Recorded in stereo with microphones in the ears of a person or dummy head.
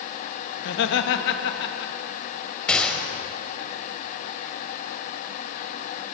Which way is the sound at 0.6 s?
65° left (ahead or behind).